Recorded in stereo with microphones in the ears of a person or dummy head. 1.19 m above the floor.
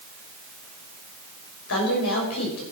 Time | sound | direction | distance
1.7 | a woman speaking | 85° left | 6 m